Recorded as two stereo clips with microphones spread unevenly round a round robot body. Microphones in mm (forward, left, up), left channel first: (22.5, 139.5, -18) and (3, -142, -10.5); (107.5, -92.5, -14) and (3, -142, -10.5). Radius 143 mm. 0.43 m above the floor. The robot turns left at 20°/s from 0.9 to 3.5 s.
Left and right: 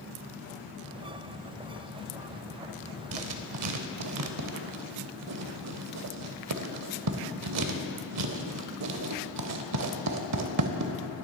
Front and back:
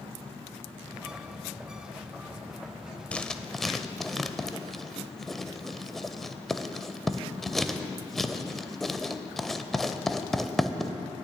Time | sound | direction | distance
3.1 | writing | 55° right | 0.7 m